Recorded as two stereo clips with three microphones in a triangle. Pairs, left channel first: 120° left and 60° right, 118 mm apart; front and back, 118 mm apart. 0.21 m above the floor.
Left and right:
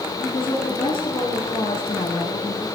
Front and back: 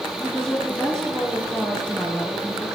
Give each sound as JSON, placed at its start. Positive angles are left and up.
{"t": 0.2, "sound": "a woman speaking", "azimuth_deg": 85, "distance_m": 3.0}